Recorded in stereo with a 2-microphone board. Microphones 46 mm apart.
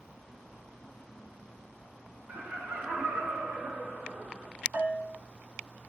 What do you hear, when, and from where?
2.3 s laughter: 50° right (ahead or behind), 3 m; by 4.5 s 65° right (ahead or behind), 4 m
4.7 s a bell: 45° right (ahead or behind), 0.6 m